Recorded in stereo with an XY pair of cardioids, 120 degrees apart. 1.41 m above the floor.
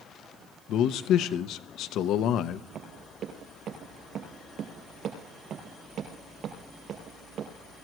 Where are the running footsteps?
60° right, 5.5 m.